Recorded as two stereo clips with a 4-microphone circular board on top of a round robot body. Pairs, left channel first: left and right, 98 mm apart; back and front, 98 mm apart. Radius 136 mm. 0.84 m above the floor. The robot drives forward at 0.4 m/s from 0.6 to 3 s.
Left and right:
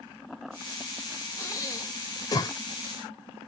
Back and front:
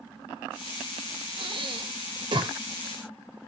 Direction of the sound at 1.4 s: 35° left.